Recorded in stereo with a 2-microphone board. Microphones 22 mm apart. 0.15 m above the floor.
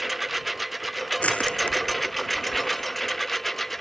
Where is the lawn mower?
5° right (ahead or behind); by 3.8 s 5° left (ahead or behind).